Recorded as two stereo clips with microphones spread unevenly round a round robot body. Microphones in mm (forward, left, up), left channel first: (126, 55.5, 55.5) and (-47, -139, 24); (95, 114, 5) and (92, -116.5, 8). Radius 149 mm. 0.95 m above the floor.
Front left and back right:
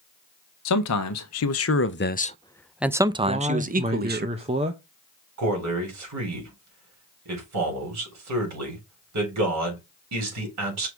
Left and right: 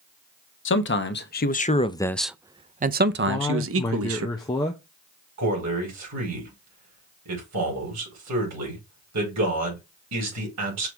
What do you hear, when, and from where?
0.7 s a man speaking: 65° left, 1.0 m; by 4.3 s 85° right, 1.1 m
3.3 s a man speaking: 165° left, 0.5 m
5.4 s a man speaking: 120° right, 3.5 m